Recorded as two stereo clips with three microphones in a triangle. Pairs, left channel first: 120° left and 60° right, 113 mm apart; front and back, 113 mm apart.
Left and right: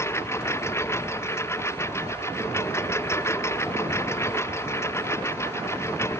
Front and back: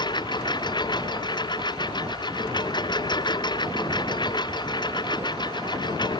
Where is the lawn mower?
50° left.